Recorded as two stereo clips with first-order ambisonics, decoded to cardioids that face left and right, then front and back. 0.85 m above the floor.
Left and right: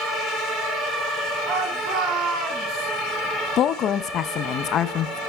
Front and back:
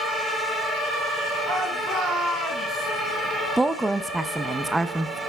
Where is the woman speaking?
105° left, 0.6 m.